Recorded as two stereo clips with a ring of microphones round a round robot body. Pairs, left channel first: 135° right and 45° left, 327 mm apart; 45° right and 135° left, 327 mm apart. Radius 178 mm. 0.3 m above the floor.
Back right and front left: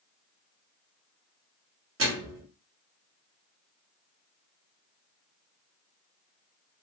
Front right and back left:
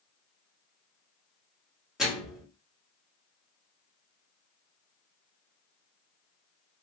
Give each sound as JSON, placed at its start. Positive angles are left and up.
{"t": 2.0, "sound": "a microwave", "azimuth_deg": 45, "distance_m": 1.3}